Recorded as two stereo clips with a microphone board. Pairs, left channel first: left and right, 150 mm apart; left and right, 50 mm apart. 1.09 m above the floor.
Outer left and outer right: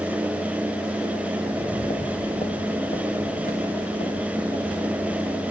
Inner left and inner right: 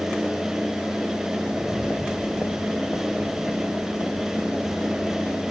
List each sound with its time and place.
1.4 s footsteps: 15° left (ahead or behind), 1.0 m; by 5.4 s 65° left (ahead or behind), 5 m